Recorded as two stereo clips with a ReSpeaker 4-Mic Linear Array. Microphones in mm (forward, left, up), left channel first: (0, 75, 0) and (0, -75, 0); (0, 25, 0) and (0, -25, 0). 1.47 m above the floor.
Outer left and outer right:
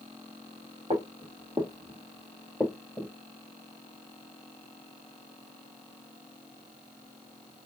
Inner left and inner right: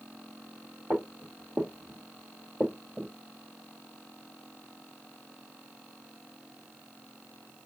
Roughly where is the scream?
I don't hear a scream.